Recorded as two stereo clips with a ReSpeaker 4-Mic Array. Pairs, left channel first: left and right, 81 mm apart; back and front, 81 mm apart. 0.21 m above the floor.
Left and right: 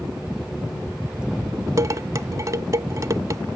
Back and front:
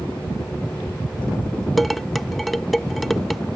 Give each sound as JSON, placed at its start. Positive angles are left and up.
{"t": 1.8, "sound": "dishes clattering", "azimuth_deg": -90}